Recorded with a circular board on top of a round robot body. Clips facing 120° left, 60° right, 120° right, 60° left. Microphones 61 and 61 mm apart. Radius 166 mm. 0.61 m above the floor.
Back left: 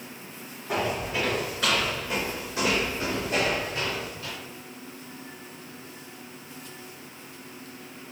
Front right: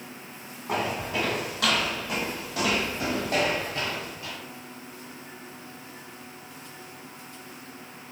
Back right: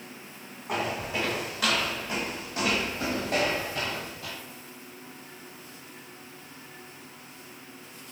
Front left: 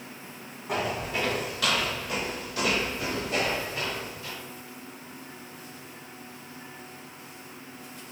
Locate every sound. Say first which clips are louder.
0.7 s footsteps: even, front left 1 dB; 30° right, 1.8 m; by 4.3 s 140° right, 0.8 m